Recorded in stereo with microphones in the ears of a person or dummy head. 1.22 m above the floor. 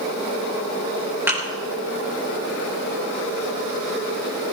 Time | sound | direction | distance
1.3 | a thud | 10° right (ahead or behind) | 4.5 m